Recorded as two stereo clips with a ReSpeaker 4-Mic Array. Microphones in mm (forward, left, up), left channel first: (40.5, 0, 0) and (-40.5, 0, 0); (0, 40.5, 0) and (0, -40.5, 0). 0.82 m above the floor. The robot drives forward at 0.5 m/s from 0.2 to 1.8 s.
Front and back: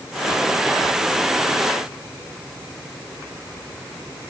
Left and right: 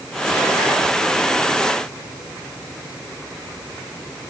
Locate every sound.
Only background noise.